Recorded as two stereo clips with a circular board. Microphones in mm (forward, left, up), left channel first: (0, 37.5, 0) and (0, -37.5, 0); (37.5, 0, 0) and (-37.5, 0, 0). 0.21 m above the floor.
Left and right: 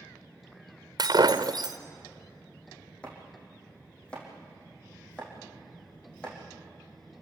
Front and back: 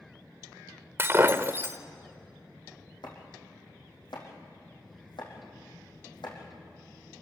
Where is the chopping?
15° left, 5.5 m.